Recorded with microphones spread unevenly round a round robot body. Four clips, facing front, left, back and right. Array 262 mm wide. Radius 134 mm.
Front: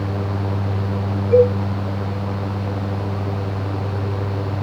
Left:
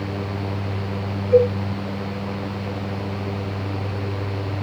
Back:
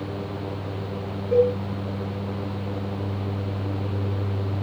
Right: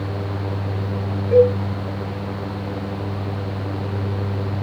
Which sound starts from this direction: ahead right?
A cowbell, at 1.3 s.